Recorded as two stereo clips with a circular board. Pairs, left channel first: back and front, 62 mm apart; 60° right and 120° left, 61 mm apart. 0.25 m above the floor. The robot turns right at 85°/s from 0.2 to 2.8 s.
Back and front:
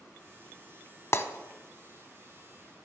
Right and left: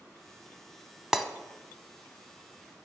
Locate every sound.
1.1 s breaking glass: 160° right, 0.7 m; by 1.2 s 150° right, 0.7 m